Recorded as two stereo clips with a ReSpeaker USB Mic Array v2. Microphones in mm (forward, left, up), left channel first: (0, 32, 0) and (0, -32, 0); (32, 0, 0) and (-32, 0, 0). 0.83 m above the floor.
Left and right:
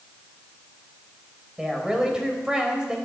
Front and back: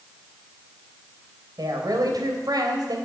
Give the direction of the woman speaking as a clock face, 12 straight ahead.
6 o'clock.